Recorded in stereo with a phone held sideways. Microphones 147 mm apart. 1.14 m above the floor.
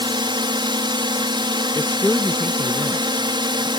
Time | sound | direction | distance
0.0 | a drone | 30° right (ahead or behind) | ?
1.8 | a man speaking | 10° left (ahead or behind) | ?